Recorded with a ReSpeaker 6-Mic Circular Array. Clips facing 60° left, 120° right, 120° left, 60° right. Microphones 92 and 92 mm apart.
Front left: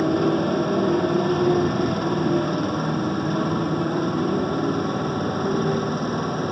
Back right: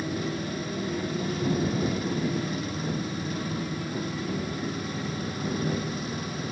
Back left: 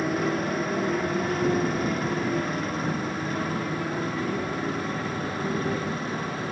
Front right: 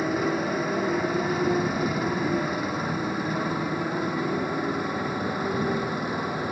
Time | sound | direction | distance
0.0 | a motorcycle | 25° left | ?